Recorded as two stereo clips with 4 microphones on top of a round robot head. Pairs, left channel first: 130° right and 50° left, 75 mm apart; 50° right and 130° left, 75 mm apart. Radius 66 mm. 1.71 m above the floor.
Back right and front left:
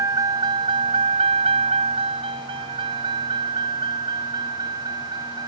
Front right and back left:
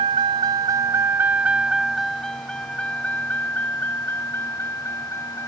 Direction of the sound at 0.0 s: 105° left.